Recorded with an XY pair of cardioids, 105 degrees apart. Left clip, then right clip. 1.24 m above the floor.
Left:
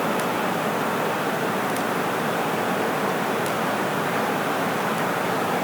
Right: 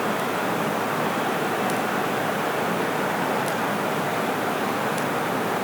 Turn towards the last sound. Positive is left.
No sound to turn to.